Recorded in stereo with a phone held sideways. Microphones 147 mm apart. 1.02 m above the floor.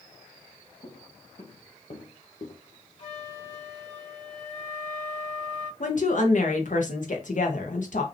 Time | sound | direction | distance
0.8 | footsteps | 70° left (ahead or behind) | 3 m
3.0 | a flute | 50° left (ahead or behind) | 2.5 m
5.8 | a woman speaking | 60° left (ahead or behind) | 1.4 m